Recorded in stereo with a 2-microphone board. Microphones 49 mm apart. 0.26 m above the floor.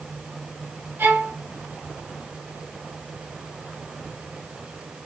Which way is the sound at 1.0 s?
55° right (ahead or behind).